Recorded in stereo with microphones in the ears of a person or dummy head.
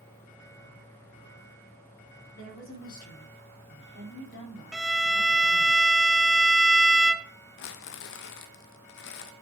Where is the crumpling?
65° left (ahead or behind), 1.0 m.